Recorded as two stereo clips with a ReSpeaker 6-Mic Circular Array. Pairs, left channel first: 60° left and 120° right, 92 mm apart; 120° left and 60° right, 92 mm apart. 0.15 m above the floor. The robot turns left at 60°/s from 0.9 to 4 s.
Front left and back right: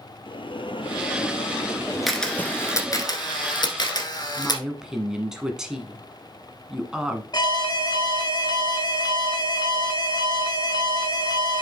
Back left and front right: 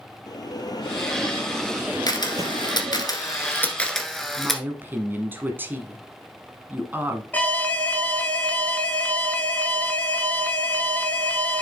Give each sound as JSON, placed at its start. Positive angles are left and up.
{"t": 0.3, "sound": "a bell", "azimuth_deg": 80, "distance_m": 0.7}
{"t": 2.1, "sound": "a camera shutter", "azimuth_deg": 150, "distance_m": 1.2}
{"t": 4.4, "sound": "a woman speaking", "azimuth_deg": -45, "distance_m": 1.1}
{"t": 7.3, "sound": "an alarm", "azimuth_deg": 50, "distance_m": 1.1}